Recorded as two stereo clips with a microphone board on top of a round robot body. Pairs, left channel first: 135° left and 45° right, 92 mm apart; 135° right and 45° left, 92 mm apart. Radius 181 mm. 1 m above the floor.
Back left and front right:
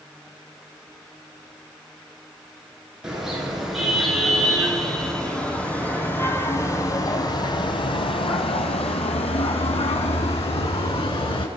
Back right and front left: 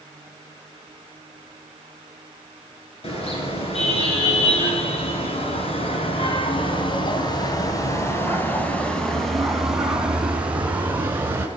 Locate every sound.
3.0 s a car horn: 130° right, 7.5 m; by 11.5 s 115° left, 6 m